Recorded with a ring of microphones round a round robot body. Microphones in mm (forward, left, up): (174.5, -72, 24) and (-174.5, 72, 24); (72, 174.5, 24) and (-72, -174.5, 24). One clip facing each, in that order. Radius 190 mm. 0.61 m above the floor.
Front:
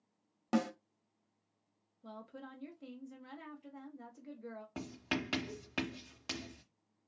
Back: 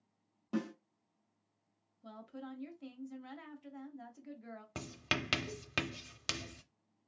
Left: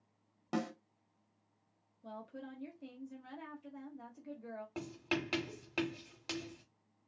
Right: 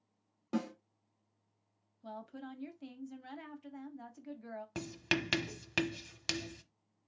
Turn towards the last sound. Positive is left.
turn(degrees=-160)